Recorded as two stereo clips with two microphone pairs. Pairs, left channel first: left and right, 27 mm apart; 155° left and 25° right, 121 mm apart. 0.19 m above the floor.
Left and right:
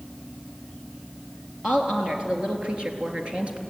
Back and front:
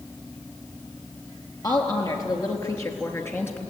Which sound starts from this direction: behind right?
A woman speaking, at 1.6 s.